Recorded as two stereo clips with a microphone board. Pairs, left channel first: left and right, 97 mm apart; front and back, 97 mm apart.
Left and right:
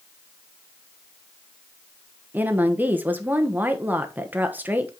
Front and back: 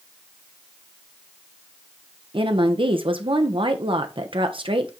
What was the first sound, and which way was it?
A woman speaking, 160° right.